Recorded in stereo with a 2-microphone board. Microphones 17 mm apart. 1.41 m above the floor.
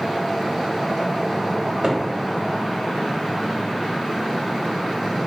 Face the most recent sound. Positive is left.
turn(degrees=-55)  # may be behind; listen again after turning